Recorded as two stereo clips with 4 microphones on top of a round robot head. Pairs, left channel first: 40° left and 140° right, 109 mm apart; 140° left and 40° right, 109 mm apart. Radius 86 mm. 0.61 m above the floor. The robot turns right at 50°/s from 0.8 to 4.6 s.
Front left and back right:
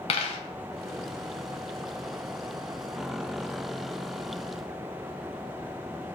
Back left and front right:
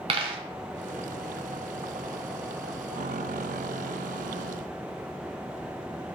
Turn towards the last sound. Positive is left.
turn(degrees=-165)